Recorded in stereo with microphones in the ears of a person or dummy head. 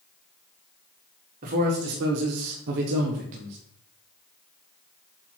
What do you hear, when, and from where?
1.4 s a man speaking: 45° right (ahead or behind), 1.7 m; by 3.6 s 40° right (ahead or behind), 1.3 m